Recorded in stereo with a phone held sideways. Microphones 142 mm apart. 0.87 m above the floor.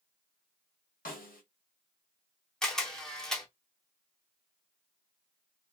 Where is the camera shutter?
5° left (ahead or behind), 0.8 m.